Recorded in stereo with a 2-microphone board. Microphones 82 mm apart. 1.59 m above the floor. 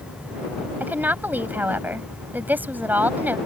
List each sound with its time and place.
0.8 s a woman speaking: 20° right (ahead or behind)